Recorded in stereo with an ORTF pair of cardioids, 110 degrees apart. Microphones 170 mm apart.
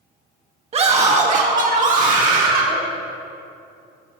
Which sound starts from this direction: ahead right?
A scream, at 0.7 s.